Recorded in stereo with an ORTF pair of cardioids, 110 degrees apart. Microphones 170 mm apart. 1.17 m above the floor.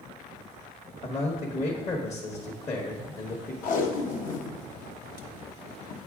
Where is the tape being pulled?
55° left, 0.9 m.